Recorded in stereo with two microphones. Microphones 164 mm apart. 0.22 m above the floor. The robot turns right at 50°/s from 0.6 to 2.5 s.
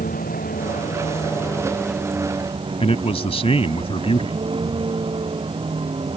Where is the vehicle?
60° left (ahead or behind); by 6.2 s 35° right (ahead or behind).